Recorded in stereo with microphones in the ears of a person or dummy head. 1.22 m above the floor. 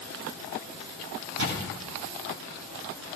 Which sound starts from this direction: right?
A camera shutter, at 1.4 s.